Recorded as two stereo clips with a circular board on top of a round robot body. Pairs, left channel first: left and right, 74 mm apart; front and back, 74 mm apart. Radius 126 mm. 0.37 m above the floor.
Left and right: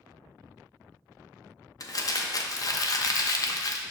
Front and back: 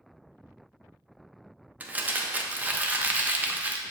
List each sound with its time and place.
1.8 s crumpling: 115° left, 0.6 m